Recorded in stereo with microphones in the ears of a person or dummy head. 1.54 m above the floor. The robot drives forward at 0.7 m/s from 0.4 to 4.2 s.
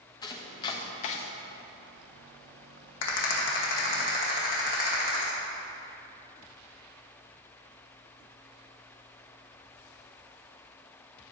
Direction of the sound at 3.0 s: 70° left (ahead or behind).